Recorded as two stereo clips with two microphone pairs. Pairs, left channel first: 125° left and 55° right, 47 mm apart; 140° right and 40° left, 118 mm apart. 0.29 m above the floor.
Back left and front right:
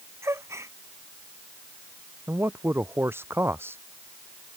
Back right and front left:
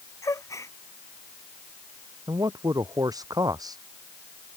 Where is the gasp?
75° right.